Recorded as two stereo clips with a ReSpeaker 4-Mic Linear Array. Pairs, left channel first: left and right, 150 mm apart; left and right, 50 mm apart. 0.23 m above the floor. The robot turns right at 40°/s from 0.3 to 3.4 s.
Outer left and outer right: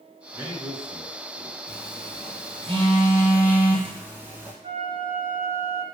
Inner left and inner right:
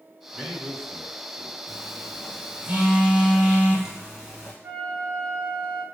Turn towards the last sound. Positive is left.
turn(degrees=-35)  # may be behind; listen again after turning